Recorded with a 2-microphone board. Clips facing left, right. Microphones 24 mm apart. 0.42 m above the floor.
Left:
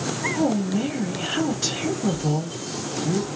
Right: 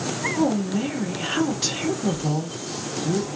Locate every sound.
0.4 s a woman speaking: 20° right (ahead or behind), 1.5 m